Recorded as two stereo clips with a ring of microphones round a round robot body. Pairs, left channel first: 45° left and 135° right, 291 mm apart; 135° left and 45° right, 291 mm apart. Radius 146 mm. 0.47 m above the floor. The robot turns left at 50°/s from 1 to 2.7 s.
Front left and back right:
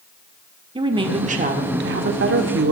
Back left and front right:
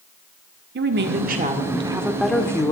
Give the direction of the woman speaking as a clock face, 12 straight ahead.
2 o'clock.